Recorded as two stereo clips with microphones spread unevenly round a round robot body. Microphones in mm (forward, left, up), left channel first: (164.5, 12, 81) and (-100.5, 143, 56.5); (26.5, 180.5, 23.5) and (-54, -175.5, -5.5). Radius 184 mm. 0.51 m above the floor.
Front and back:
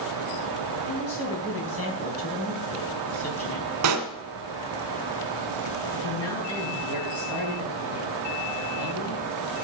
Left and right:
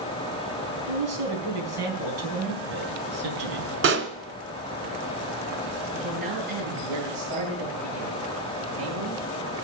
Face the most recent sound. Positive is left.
turn(degrees=-70)